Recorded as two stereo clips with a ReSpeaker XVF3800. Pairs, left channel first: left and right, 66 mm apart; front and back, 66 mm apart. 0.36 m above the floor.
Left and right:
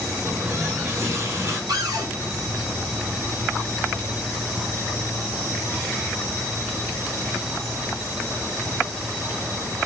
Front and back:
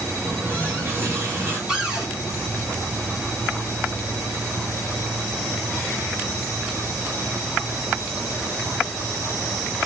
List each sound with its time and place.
0.2 s a running tap: 130° right, 2 m
1.7 s a cupboard door: 100° right, 1.7 m